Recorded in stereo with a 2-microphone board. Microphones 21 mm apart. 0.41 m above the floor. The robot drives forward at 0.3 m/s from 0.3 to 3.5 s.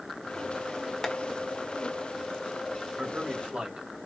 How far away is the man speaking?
About 2.5 m.